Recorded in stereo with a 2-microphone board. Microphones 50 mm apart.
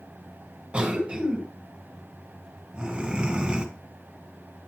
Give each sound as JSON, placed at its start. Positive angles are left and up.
{"t": 0.7, "sound": "a cough", "side_deg": -20, "distance_m": 1.3}